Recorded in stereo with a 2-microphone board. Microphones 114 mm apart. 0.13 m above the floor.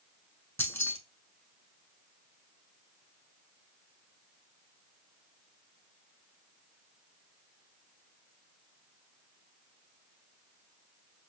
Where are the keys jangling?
20° left (ahead or behind), 0.7 m.